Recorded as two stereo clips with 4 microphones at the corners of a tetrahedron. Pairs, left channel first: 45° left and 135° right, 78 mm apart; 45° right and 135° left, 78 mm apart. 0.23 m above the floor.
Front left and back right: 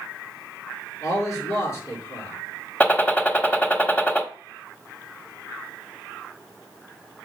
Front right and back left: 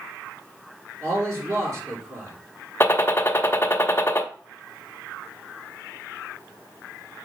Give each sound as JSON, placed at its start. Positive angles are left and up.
{"t": 1.0, "sound": "a man speaking", "azimuth_deg": 90, "distance_m": 4.0}
{"t": 2.8, "sound": "a gunshot", "azimuth_deg": -15, "distance_m": 0.9}